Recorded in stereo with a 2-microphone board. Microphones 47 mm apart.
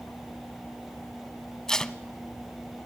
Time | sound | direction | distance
1.7 | tape being pulled | 15° left (ahead or behind) | 0.9 m